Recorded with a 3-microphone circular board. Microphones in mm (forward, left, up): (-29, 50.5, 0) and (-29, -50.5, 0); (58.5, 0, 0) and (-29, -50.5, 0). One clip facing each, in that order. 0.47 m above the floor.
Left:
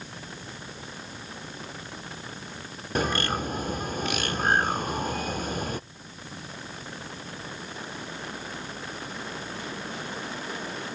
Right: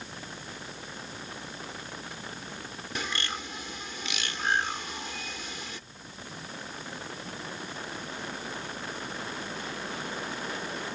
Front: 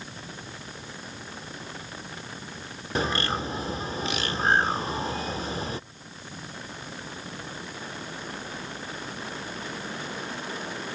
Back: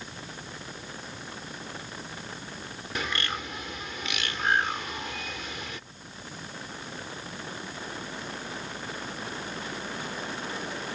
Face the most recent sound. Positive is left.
turn(degrees=75)